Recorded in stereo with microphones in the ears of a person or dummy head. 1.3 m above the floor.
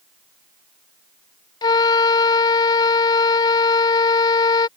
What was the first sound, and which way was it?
A flute, 25° left (ahead or behind).